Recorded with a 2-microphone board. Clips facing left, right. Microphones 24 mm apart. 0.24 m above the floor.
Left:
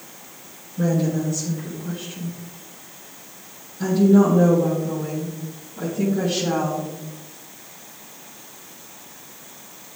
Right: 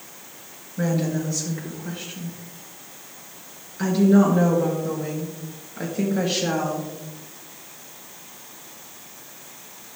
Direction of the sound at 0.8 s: 60° right (ahead or behind).